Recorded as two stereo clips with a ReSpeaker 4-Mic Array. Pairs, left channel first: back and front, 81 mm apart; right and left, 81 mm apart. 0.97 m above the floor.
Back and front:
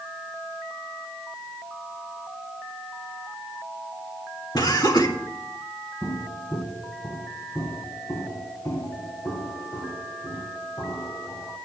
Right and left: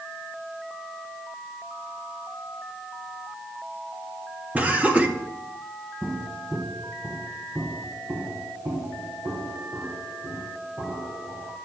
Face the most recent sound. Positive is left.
turn(degrees=125)